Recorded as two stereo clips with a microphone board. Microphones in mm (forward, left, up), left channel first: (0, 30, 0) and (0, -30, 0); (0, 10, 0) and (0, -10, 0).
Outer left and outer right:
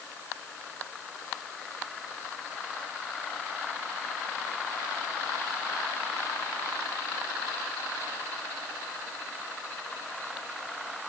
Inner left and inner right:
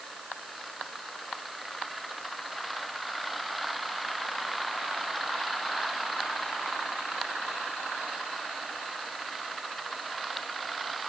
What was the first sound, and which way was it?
Only background noise.